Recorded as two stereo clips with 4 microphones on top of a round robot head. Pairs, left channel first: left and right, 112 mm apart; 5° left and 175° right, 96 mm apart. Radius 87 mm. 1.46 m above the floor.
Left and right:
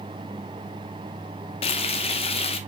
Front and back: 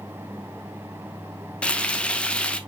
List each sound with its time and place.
1.6 s frying: 80° left, 0.7 m